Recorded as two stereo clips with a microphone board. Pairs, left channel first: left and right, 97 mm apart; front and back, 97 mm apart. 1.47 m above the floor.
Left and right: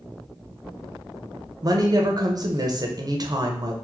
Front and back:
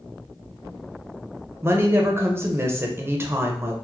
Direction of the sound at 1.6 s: 125° right.